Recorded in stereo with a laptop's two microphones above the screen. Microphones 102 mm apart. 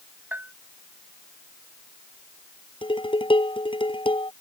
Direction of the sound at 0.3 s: 20° right (ahead or behind).